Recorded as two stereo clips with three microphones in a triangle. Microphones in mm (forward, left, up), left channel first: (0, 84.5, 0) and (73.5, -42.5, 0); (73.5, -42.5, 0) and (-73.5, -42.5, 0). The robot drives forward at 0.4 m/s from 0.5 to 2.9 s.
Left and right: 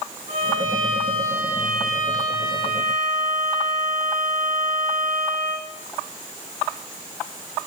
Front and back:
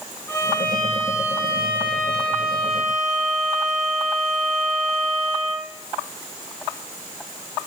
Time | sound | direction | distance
0.3 | a violin | 75° right | 4 m